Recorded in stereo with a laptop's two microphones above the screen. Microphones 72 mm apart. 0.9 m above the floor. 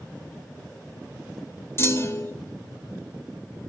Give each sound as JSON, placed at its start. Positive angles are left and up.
{"t": 1.8, "sound": "a clunk", "side_deg": 35, "distance_m": 1.4}